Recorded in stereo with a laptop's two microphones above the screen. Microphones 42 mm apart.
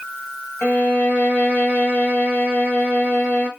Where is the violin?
45° left (ahead or behind), 0.9 m.